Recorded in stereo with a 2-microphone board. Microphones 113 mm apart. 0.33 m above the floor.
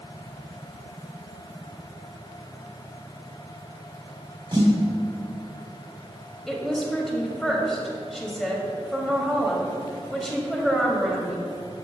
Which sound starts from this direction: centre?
A woman speaking, at 6.5 s.